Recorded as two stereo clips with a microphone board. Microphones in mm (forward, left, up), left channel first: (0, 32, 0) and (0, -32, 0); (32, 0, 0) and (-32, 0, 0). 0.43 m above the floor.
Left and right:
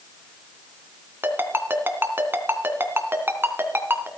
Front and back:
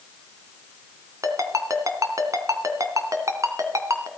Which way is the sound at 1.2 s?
145° right.